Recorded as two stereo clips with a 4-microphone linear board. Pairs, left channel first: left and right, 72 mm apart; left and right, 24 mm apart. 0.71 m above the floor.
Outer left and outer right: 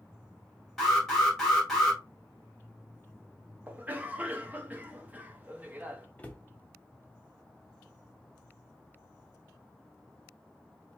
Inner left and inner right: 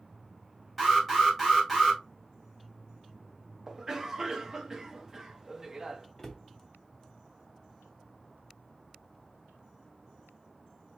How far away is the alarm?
About 3 m.